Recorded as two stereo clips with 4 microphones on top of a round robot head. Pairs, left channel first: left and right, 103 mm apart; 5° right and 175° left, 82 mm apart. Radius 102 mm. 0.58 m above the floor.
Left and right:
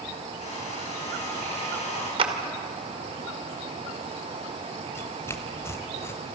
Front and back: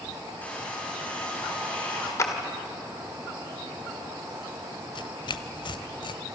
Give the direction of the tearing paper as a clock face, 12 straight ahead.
11 o'clock.